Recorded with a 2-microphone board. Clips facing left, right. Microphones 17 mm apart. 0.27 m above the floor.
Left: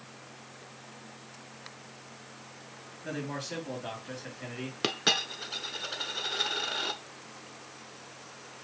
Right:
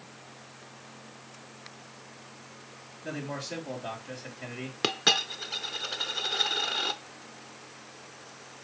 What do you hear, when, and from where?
3.0 s a man speaking: centre (ahead or behind), 4 m
4.8 s a dropped coin: 5° right (ahead or behind), 0.6 m